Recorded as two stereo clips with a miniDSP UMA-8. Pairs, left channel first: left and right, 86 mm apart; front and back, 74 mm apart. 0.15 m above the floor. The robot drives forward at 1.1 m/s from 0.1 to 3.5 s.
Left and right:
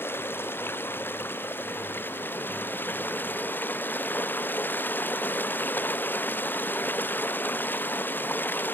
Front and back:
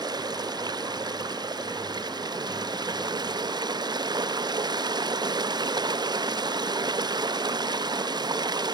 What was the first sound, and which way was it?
Running water, 155° left.